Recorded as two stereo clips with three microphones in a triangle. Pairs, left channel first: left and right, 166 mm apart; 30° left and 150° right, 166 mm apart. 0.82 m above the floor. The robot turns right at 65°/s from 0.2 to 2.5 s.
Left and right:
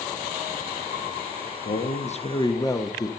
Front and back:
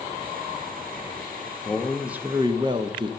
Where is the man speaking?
100° left, 0.8 m; by 3.1 s 155° left, 0.8 m.